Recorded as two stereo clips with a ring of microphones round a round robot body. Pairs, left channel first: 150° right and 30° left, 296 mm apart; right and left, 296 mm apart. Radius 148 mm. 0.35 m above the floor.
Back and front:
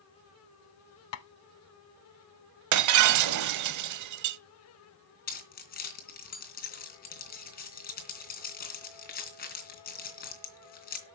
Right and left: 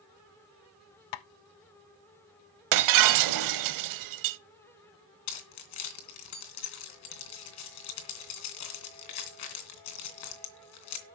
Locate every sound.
1.1 s tapping: 105° right, 0.6 m
2.7 s breaking glass: 65° left, 0.8 m
5.3 s keys jangling: 90° right, 3 m